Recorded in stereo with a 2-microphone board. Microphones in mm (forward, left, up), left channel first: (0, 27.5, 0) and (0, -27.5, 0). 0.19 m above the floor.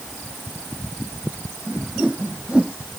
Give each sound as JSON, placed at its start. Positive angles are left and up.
{"t": 1.7, "sound": "a whoosh", "side_deg": -20}